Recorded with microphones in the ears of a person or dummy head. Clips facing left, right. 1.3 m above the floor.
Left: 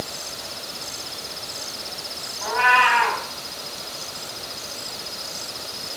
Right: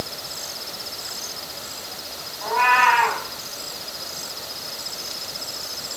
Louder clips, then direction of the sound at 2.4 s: Right 1 dB; centre (ahead or behind).